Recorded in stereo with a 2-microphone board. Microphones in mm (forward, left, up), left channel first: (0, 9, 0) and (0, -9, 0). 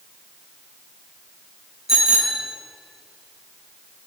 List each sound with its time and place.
1.9 s a bicycle bell: 25° right (ahead or behind), 6.5 m